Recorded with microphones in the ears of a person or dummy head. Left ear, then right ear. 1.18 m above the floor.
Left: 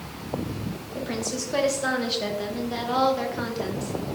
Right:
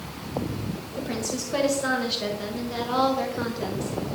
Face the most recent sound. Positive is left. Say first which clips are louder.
# even
turn(degrees=10)  # may be behind; listen again after turning